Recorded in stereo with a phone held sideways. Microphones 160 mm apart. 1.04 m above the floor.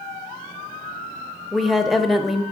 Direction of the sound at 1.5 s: Centre (ahead or behind).